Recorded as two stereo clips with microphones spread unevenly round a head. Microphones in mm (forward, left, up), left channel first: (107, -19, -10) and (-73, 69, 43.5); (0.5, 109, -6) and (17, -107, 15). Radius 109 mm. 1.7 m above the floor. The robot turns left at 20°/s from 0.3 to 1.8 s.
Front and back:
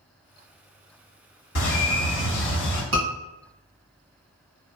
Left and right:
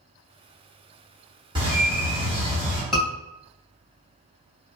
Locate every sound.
1.6 s a bird: 40° right, 1.6 m; by 2.8 s 45° right, 1.6 m
2.9 s a scream: 175° right, 1.7 m